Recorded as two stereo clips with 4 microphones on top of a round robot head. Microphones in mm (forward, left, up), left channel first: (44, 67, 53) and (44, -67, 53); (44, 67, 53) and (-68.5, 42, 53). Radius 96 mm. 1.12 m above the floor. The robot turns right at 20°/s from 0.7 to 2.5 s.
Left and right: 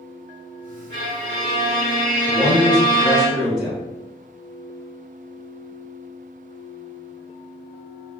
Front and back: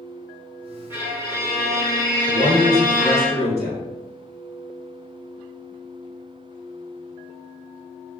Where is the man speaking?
Straight behind, 1.9 m; by 3.8 s 175° right, 1.9 m.